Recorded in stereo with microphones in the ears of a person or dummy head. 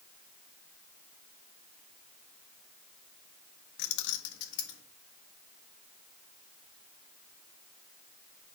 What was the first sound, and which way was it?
Keys jangling, 65° left (ahead or behind).